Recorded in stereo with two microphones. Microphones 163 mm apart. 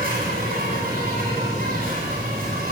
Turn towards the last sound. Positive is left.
turn(degrees=-70)  # may be behind; listen again after turning